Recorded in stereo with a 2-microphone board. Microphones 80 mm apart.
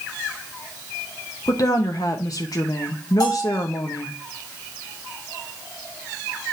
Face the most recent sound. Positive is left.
turn(degrees=60)  # may be behind; listen again after turning